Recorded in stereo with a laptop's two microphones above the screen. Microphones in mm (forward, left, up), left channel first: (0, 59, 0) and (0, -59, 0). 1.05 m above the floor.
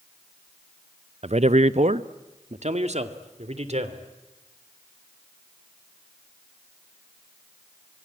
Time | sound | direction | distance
1.2 | a man speaking | 65° right (ahead or behind) | 0.6 m